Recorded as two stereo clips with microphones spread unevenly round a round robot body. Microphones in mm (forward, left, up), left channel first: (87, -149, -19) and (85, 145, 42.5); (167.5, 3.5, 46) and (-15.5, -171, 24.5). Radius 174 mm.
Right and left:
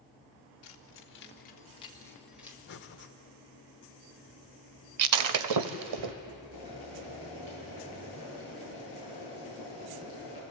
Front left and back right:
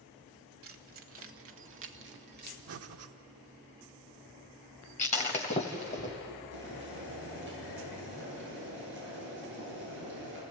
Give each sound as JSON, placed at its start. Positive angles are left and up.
{"t": 0.6, "sound": "keys jangling", "azimuth_deg": -120, "distance_m": 1.4}
{"t": 2.7, "sound": "breathing", "azimuth_deg": -135, "distance_m": 0.9}
{"t": 5.0, "sound": "breaking glass", "azimuth_deg": 115, "distance_m": 0.6}
{"t": 6.5, "sound": "boiling", "azimuth_deg": 165, "distance_m": 7.0}